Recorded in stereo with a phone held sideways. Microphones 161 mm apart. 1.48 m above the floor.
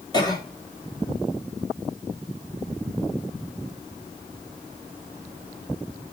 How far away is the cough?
About 4 m.